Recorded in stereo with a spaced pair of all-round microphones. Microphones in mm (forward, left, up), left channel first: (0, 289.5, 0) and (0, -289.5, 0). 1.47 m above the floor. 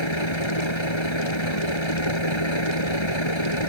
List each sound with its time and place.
0.0 s a vehicle: 55° left (ahead or behind)